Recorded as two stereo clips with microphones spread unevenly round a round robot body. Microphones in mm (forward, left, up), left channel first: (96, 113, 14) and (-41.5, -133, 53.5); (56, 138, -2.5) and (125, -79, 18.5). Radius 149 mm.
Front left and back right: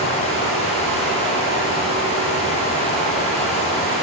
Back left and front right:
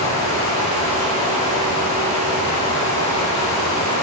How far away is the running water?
About 6 m.